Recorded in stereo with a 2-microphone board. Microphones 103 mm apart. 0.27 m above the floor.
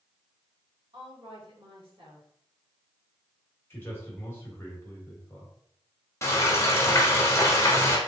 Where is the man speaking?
20° left (ahead or behind), 1.3 m.